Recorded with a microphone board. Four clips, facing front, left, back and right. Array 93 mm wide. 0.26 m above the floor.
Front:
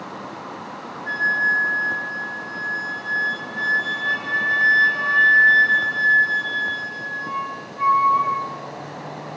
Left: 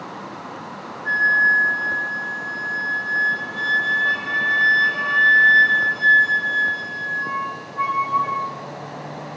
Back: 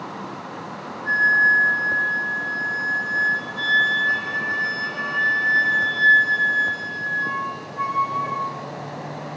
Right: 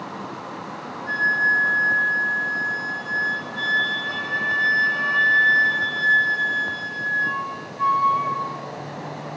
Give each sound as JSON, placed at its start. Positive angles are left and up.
{"t": 1.1, "sound": "a flute", "azimuth_deg": 105, "distance_m": 5.5}